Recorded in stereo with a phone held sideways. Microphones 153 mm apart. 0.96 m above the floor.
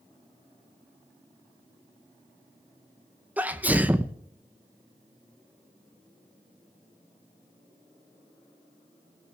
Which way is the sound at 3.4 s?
10° right (ahead or behind).